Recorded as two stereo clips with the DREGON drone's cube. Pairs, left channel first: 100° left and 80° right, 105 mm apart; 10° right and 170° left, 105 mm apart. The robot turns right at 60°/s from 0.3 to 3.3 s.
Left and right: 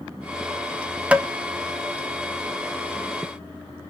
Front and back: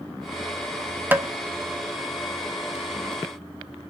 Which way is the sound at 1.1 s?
140° right.